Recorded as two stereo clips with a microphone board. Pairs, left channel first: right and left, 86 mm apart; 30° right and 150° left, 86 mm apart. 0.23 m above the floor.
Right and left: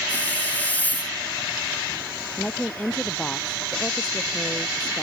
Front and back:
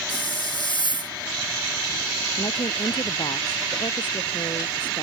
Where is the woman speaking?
15° right.